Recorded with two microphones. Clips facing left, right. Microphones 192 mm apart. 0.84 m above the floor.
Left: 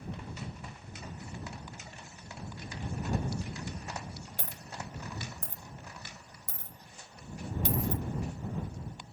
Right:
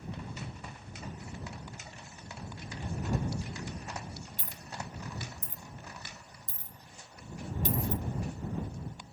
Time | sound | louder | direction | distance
3.4 | a dropped coin | even | 65° left (ahead or behind) | ?